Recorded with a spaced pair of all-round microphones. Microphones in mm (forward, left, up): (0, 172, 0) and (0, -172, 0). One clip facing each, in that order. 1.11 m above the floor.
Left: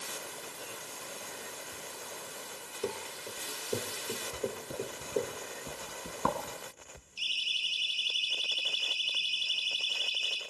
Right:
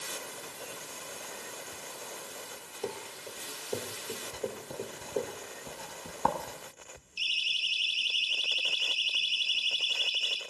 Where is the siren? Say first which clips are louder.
Right 1 dB; 75° right (ahead or behind), 4.5 m; by 10.4 s 80° right, 5 m.